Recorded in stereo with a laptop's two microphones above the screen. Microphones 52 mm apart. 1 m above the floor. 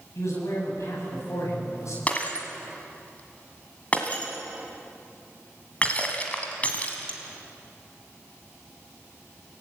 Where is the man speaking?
75° left (ahead or behind), 7.5 m.